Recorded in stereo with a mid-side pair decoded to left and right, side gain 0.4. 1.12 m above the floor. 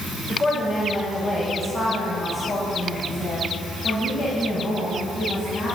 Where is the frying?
I don't hear frying.